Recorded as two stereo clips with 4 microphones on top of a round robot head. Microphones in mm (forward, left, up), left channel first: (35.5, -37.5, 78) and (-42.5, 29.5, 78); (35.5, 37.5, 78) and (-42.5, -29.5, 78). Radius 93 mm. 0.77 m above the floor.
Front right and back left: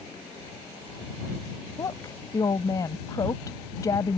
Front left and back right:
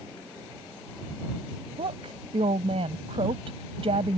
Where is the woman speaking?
100° right.